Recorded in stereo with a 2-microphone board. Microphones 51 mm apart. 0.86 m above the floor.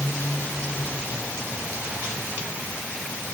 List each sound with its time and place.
Only background noise.